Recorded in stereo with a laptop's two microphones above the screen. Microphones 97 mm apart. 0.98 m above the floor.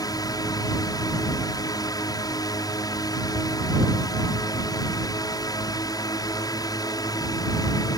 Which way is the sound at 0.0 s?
40° left (ahead or behind).